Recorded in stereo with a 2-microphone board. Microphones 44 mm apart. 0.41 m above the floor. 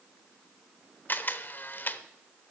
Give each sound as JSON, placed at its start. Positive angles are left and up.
{"t": 1.1, "sound": "a camera shutter", "side_deg": 45, "distance_m": 0.7}